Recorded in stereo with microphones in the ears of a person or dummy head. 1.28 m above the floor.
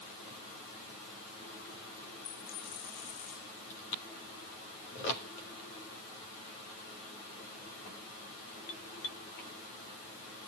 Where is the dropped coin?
40° left (ahead or behind), 8.5 m.